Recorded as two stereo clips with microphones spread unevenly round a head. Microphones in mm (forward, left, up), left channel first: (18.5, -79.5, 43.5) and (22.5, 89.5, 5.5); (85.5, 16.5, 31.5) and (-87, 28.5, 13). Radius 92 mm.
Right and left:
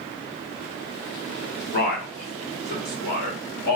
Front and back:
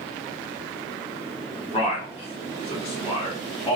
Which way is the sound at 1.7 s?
60° right.